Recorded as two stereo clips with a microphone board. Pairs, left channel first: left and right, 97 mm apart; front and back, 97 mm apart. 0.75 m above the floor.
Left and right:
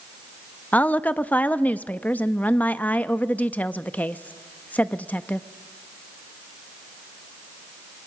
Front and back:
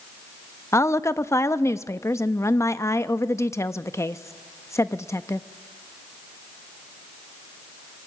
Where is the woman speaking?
30° left, 0.6 m.